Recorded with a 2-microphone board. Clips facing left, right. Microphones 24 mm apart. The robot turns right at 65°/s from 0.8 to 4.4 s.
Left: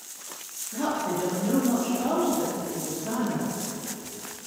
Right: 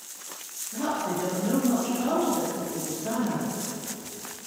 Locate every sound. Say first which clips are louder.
0.7 s a woman speaking: left 1 dB; 155° left, 1.9 m; by 3.5 s 25° right, 1.9 m